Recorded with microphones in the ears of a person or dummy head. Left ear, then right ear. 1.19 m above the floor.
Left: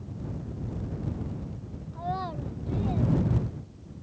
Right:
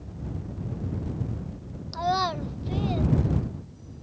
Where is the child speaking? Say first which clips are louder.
Right 8 dB; 70° right (ahead or behind); by 4.0 s 40° right (ahead or behind).